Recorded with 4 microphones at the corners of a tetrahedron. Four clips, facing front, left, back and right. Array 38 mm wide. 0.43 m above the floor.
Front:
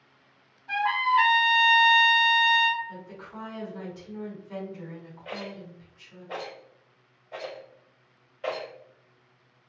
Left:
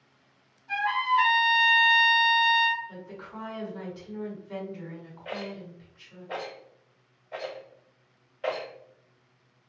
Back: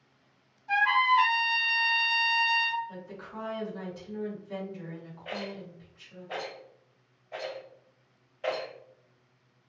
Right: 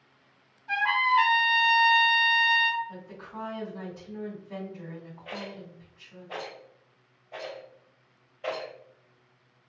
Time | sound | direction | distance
0.7 | a trumpet | 50° right | 1.2 m
2.9 | a woman speaking | 85° left | 1.7 m
5.2 | a rattle | 75° left | 1.7 m